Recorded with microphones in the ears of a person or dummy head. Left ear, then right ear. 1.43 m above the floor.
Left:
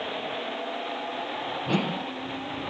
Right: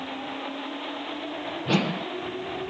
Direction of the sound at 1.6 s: 25° right (ahead or behind).